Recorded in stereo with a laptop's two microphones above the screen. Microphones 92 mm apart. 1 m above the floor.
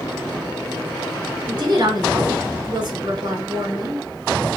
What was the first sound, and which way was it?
A woman speaking, 60° right (ahead or behind).